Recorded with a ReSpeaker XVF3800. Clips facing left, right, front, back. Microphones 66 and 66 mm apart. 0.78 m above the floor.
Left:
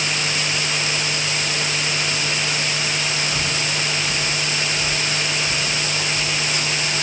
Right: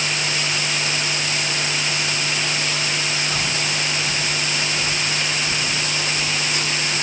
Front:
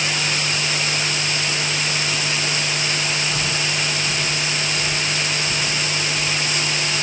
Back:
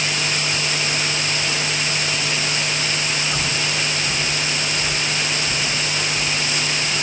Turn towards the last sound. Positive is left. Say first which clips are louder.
# even, even
turn(degrees=-110)